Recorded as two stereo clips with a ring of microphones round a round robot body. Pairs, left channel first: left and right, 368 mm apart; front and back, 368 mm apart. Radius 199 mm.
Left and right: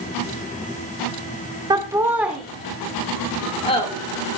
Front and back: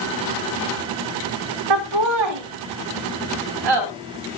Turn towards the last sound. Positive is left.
turn(degrees=165)